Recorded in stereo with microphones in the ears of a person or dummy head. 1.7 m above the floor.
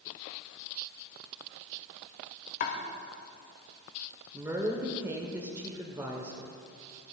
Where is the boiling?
No boiling in this recording.